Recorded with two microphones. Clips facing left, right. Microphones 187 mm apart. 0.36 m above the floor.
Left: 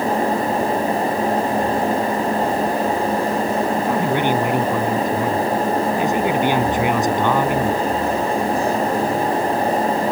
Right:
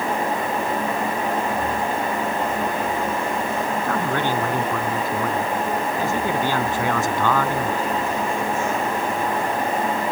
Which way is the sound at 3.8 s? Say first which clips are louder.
Left 4 dB; 20° left (ahead or behind).